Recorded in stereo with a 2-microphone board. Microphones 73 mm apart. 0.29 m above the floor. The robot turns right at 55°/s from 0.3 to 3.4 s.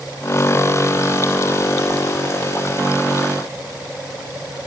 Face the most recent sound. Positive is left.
No sound to turn to.